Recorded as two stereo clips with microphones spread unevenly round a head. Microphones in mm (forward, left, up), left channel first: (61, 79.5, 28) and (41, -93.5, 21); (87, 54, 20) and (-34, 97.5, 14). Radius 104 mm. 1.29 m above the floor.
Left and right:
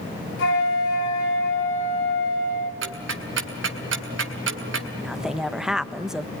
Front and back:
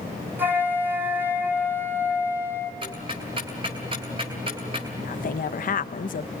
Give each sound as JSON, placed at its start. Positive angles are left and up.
{"t": 0.4, "sound": "a flute", "azimuth_deg": 85, "distance_m": 5.5}
{"t": 2.8, "sound": "ticking", "azimuth_deg": -135, "distance_m": 2.0}
{"t": 5.0, "sound": "a woman speaking", "azimuth_deg": -10, "distance_m": 1.3}